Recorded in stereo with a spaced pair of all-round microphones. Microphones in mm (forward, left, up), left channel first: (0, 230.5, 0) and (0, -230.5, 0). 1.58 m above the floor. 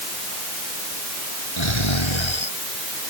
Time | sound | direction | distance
1.6 | snoring | 80° left | ?